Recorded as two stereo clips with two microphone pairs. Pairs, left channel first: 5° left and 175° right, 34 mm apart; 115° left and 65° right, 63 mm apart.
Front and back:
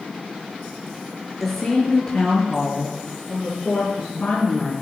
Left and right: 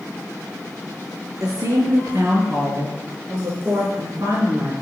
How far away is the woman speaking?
About 4 m.